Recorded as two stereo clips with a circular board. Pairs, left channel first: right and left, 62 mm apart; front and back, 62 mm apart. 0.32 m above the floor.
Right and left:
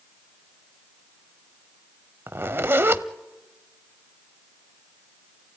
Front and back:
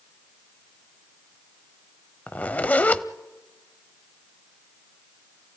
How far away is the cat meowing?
No cat meowing in this recording.